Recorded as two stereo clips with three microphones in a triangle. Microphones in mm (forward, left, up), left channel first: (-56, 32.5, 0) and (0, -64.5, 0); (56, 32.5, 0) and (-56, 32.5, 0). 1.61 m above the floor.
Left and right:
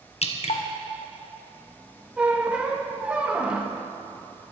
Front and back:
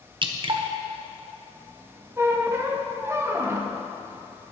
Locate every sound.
0.2 s dripping: 140° left, 0.9 m
2.2 s a squeak: 135° right, 1.0 m